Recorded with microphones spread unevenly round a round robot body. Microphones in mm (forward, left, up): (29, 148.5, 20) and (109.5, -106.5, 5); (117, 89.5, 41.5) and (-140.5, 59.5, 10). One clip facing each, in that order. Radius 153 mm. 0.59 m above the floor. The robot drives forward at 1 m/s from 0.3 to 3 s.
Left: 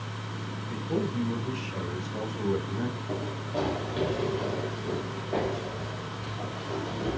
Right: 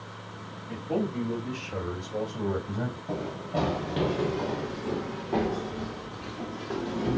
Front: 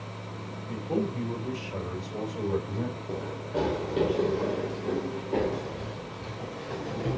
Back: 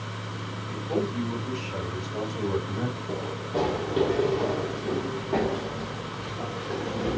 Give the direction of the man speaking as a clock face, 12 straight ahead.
2 o'clock.